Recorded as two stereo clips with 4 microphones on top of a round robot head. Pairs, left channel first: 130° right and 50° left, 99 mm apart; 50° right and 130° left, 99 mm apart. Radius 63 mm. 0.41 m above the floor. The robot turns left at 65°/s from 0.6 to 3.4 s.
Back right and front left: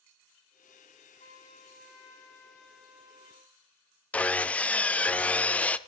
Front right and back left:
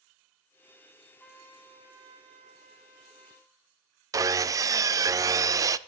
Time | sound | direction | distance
1.2 | a trumpet | 130° right | 4 m
4.1 | sawing | 160° left | 0.6 m